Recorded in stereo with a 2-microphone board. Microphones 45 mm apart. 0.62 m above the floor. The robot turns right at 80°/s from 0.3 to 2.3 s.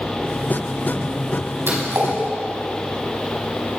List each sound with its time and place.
1.7 s a splash: 60° right (ahead or behind), 5 m; by 2.1 s 75° right (ahead or behind), 5 m